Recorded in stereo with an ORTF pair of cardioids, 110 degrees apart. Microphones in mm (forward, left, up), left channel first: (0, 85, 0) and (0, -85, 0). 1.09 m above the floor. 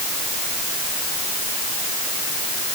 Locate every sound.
Only background noise.